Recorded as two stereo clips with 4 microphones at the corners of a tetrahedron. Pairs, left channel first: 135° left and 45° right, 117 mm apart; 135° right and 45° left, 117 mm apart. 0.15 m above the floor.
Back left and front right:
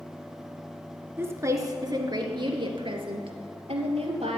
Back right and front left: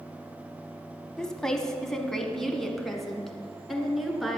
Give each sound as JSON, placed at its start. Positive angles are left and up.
{"t": 1.2, "sound": "a woman speaking", "azimuth_deg": -60, "distance_m": 1.2}